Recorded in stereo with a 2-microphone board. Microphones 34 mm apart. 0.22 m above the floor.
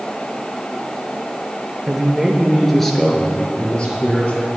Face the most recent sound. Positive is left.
turn(degrees=35)  # may be behind; listen again after turning